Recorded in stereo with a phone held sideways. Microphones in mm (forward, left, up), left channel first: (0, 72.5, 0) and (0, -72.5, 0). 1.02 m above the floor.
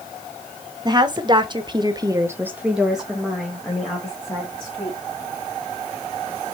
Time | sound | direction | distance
0.8 | a woman speaking | 30° right (ahead or behind) | 1.4 m